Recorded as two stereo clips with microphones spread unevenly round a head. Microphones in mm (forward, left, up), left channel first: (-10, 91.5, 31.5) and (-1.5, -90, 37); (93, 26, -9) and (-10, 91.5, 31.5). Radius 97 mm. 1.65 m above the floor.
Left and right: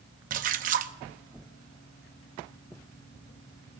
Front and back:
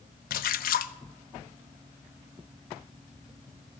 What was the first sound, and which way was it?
A splash, 45° right.